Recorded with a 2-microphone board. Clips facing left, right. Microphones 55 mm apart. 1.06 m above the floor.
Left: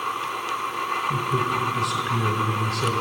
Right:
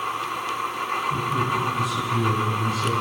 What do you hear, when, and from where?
1.1 s a man speaking: 85° left, 4.5 m